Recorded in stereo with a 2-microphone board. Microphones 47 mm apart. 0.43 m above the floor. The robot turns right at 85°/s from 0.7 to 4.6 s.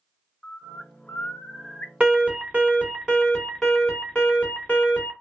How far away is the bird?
About 0.7 m.